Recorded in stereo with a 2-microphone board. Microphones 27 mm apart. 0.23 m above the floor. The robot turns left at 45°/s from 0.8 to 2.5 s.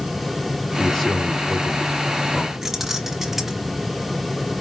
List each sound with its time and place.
0.8 s a man speaking: 170° left, 3 m; by 2.5 s 95° left, 3 m
2.6 s keys jangling: 10° right (ahead or behind), 1.3 m